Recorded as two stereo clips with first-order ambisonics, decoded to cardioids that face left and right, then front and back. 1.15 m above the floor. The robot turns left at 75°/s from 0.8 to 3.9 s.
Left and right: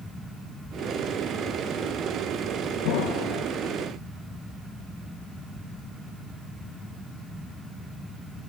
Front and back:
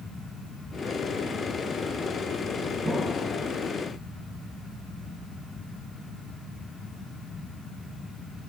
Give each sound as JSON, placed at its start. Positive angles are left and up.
{"t": 2.9, "sound": "an explosion", "azimuth_deg": 95, "distance_m": 1.2}